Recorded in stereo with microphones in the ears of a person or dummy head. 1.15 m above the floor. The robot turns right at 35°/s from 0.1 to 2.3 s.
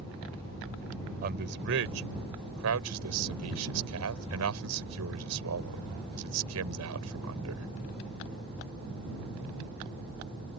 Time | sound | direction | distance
1.2 | a man speaking | 50° right (ahead or behind) | ?